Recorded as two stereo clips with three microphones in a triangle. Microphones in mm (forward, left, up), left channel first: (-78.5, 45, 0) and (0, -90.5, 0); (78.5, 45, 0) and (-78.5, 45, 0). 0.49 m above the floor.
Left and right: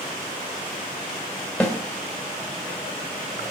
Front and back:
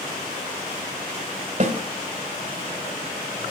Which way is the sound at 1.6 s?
155° right.